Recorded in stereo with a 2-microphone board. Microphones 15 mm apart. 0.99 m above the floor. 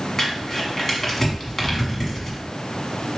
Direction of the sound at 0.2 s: 20° left (ahead or behind).